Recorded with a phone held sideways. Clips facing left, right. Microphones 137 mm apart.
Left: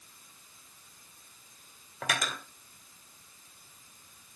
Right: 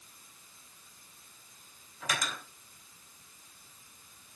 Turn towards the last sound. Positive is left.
turn(degrees=70)  # may be behind; listen again after turning